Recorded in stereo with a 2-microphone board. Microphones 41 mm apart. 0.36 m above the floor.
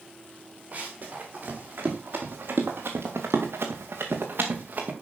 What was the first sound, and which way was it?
Running footsteps, 35° right (ahead or behind).